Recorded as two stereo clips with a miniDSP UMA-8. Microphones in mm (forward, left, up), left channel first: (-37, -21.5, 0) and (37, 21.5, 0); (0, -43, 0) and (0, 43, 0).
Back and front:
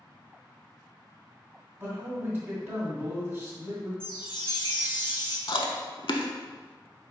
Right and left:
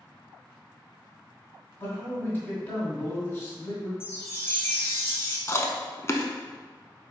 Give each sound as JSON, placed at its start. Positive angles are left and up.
{"t": 1.8, "sound": "a man speaking", "azimuth_deg": -30, "distance_m": 1.7}
{"t": 4.0, "sound": "a chime", "azimuth_deg": -145, "distance_m": 0.8}
{"t": 5.5, "sound": "chewing", "azimuth_deg": -145, "distance_m": 0.5}